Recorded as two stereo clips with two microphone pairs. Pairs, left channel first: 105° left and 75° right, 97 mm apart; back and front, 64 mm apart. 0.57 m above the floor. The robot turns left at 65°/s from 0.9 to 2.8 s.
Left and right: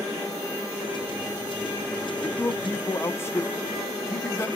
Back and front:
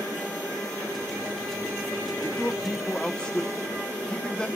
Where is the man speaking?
165° left, 0.8 m; by 4.5 s 125° left, 0.8 m.